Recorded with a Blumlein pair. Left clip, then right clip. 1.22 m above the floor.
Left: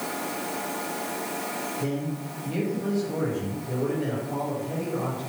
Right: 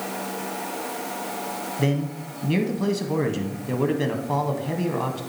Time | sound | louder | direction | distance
1.8 | a man speaking | right 4 dB | 35° right | 1.3 m